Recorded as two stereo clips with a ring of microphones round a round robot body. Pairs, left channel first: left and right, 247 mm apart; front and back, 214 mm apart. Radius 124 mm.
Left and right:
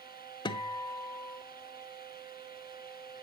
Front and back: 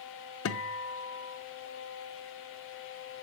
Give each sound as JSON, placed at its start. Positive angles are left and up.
{"t": 0.5, "sound": "a guitar", "azimuth_deg": 15, "distance_m": 1.1}